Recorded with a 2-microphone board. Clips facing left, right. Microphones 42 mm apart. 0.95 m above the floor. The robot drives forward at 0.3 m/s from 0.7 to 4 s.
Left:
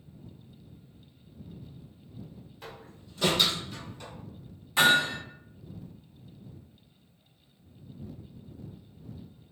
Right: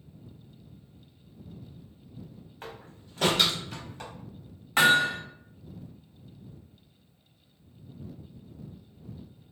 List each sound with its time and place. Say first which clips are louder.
2.6 s a door slam: right 3 dB; 45° right (ahead or behind), 0.9 m; by 4.1 s 70° right (ahead or behind), 0.7 m
4.8 s hammering: right 1 dB; 50° right (ahead or behind), 1.2 m